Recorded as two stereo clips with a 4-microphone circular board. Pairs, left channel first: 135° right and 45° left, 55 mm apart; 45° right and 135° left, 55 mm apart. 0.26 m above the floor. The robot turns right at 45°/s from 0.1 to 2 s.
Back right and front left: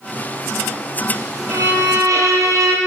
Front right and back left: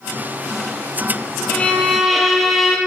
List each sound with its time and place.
1.5 s a violin: 20° left, 4 m; by 2.8 s 45° left, 4 m